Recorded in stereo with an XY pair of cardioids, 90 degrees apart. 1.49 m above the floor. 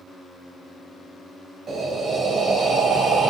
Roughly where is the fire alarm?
I don't hear a fire alarm.